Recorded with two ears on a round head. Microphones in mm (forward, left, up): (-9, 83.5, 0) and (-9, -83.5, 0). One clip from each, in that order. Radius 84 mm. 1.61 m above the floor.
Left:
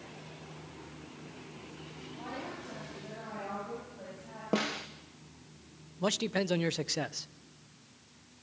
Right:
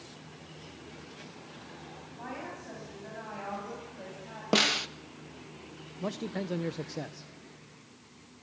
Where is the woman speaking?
40° right (ahead or behind), 8.5 m; by 4.4 s 35° right (ahead or behind), 7.5 m.